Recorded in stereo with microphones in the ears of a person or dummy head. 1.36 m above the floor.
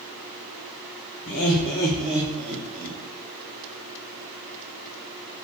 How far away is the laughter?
About 0.7 m.